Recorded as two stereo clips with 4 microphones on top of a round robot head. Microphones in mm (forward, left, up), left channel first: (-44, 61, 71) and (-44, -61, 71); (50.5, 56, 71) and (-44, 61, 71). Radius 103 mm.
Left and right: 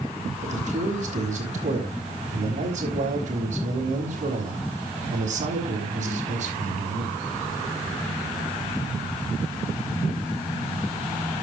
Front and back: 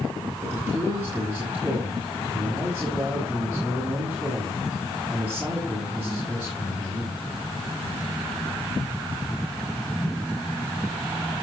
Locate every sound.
0.4 s a man speaking: 110° right, 5.5 m